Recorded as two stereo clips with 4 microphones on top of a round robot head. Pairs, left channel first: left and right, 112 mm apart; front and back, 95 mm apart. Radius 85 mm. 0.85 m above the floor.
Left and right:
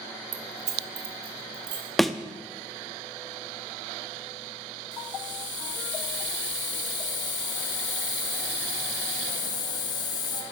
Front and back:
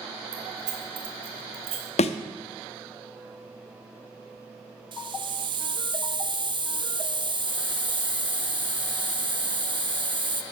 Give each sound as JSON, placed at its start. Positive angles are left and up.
{"t": 0.3, "sound": "keys jangling", "azimuth_deg": -110, "distance_m": 0.7}
{"t": 2.0, "sound": "a thud", "azimuth_deg": 0, "distance_m": 0.5}
{"t": 4.9, "sound": "a hiss", "azimuth_deg": 145, "distance_m": 0.7}